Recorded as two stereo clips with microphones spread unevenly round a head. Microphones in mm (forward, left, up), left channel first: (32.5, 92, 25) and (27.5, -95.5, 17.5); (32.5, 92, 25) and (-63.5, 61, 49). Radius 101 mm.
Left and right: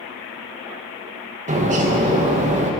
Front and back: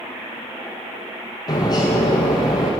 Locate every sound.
1.5 s a bird: 40° right, 1.3 m